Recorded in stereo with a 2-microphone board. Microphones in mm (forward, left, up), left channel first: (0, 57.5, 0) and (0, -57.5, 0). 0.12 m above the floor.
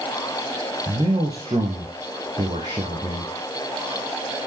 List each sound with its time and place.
0.9 s a man speaking: 35° right (ahead or behind), 3 m